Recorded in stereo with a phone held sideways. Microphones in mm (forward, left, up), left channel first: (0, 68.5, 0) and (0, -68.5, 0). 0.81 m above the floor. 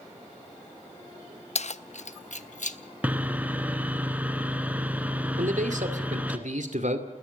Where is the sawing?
10° right (ahead or behind), 1.3 m.